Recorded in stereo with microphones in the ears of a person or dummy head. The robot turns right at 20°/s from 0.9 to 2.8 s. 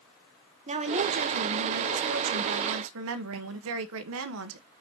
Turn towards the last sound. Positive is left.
turn(degrees=-105)